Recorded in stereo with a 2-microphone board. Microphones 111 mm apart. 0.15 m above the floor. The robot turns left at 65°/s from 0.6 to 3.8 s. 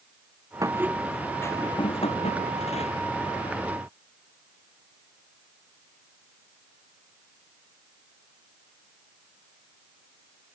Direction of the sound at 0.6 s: 150° right.